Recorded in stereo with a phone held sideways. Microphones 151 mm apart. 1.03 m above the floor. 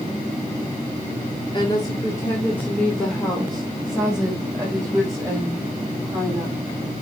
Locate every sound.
1.5 s a woman speaking: 35° left (ahead or behind), 1.9 m; by 6.6 s 20° right (ahead or behind), 5.5 m